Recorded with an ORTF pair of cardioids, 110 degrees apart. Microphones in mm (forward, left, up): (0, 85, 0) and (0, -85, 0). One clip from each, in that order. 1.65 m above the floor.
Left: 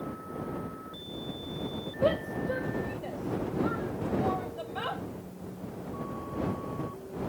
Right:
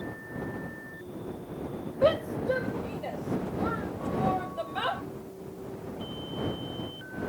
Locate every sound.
2.0 s a shout: 25° right